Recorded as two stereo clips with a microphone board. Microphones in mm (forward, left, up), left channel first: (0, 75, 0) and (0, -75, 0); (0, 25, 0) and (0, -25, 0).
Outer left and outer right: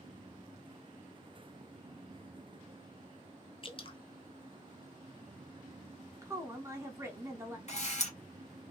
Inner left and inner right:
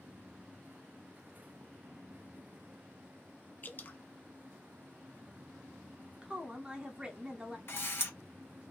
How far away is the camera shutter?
About 1.1 m.